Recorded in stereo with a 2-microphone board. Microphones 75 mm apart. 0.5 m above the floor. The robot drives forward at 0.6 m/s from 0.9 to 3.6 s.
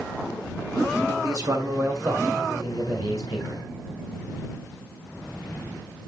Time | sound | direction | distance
1.1 | a man speaking | 45° right (ahead or behind) | 1.6 m